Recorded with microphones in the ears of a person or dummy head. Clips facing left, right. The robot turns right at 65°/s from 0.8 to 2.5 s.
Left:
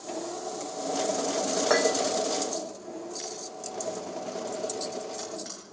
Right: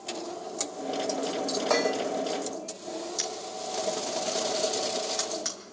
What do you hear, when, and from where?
1.7 s dishes clattering: 15° left (ahead or behind), 1.9 m; by 2.0 s 5° right (ahead or behind), 1.9 m
3.2 s a camera shutter: 75° right (ahead or behind), 5 m